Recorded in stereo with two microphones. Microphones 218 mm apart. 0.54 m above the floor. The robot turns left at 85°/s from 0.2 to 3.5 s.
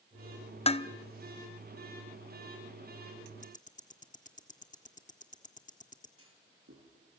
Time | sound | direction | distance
0.7 | dishes clattering | 25° left (ahead or behind) | 0.5 m
3.4 | ticking | 30° left (ahead or behind) | 1.3 m
6.2 | a clunk | 70° right (ahead or behind) | 6 m